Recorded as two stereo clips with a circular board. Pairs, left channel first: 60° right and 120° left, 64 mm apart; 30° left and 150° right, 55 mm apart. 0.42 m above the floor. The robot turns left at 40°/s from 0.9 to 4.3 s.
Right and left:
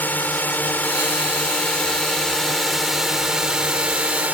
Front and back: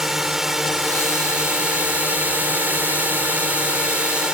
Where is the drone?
75° right; by 4.3 s 150° left.